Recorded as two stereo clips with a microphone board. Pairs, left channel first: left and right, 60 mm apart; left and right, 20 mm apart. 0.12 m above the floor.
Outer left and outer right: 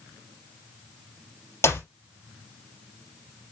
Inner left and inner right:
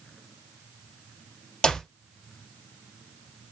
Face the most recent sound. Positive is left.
turn(degrees=50)  # may be behind; listen again after turning